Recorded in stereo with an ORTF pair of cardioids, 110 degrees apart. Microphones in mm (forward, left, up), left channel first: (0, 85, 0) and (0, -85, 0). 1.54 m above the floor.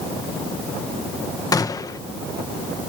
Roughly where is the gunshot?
Ahead.